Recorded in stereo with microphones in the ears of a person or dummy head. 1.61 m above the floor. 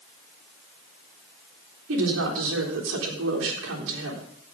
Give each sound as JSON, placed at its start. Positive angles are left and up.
{"t": 1.9, "sound": "a woman speaking", "side_deg": -75, "distance_m": 3.5}